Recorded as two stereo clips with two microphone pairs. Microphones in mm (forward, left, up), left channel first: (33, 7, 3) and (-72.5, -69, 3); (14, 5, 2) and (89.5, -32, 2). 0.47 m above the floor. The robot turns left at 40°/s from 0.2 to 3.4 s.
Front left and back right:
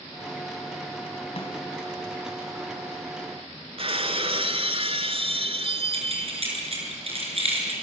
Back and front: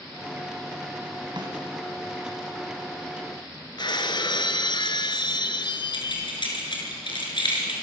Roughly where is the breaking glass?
Behind.